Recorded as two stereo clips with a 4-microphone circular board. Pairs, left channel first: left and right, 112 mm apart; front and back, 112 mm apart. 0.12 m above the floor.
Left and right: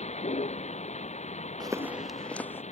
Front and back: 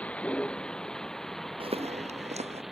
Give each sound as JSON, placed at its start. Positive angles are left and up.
{"t": 0.0, "sound": "a vehicle", "azimuth_deg": 80}
{"t": 1.6, "sound": "footsteps", "azimuth_deg": -140}